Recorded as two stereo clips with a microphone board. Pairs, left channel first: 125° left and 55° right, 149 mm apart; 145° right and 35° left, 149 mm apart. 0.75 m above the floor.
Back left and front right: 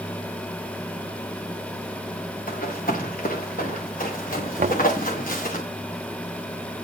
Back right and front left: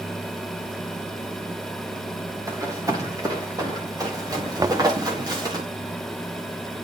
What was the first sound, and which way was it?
Running footsteps, 100° left.